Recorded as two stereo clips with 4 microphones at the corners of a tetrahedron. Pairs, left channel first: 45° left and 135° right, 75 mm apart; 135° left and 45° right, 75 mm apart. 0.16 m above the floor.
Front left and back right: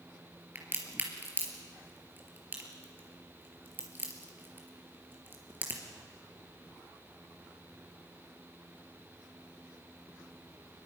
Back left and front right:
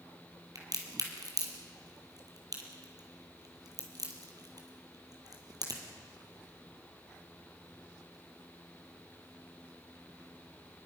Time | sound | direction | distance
0.6 | a crack | 75° right | 3.5 m